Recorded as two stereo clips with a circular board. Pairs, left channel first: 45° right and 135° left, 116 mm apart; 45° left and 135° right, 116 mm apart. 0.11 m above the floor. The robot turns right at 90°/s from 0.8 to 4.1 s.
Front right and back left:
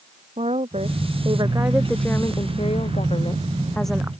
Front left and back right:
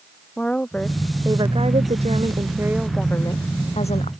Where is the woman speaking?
125° left; by 4.1 s 65° left.